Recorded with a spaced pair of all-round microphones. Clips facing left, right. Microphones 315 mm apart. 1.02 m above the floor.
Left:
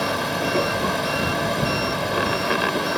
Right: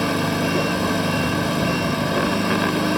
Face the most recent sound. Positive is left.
turn(degrees=-35)  # may be behind; listen again after turning